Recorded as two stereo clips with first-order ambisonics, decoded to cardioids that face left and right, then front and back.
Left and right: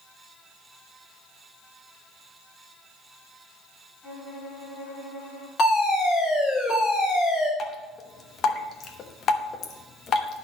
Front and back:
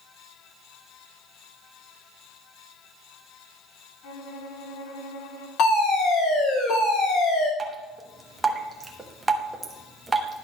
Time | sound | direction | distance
4.0 | a violin | 15° left | 1.8 m
5.6 | a fire alarm | 30° left | 3.5 m
7.6 | dripping | 110° left | 1.0 m